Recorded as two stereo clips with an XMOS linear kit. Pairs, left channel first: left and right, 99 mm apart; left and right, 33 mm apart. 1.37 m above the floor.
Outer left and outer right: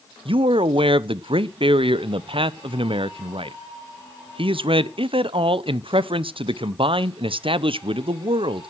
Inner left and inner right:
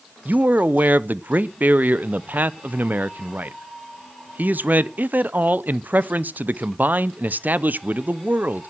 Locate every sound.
0.2 s a man speaking: 65° right (ahead or behind), 0.6 m